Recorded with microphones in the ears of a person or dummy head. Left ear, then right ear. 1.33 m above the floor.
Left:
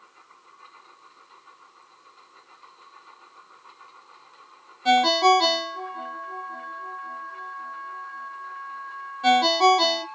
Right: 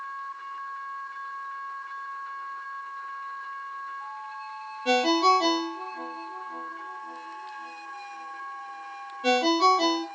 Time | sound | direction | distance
4.8 | a ringtone | 30° left (ahead or behind) | 1.0 m